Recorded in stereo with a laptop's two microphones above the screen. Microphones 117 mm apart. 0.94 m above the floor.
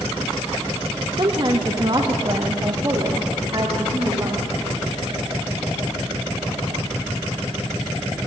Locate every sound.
1.2 s a woman speaking: 40° right (ahead or behind), 1.4 m; by 4.5 s 30° right (ahead or behind), 3 m